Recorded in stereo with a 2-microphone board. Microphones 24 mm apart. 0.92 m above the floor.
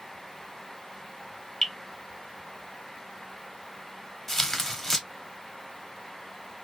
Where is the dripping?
20° left (ahead or behind), 1.2 m.